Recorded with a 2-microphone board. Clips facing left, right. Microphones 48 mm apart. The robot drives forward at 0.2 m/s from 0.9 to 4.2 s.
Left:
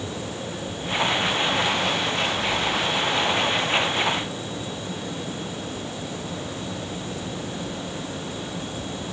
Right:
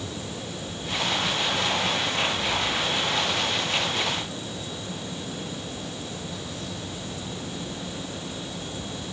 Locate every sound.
Only background noise.